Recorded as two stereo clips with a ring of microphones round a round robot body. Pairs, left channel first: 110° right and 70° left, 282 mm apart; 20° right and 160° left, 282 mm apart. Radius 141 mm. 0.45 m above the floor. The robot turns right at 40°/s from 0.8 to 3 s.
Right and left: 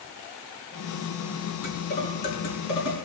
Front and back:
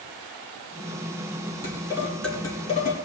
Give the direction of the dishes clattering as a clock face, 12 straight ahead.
4 o'clock.